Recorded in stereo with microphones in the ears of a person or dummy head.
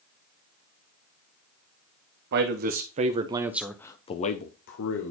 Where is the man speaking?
45° right (ahead or behind), 1.7 m; by 5.1 s 70° left (ahead or behind), 1.6 m.